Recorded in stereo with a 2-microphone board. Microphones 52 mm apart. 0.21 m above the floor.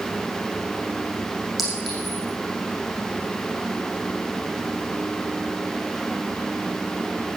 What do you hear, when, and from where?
1.6 s a clink: centre (ahead or behind), 7 m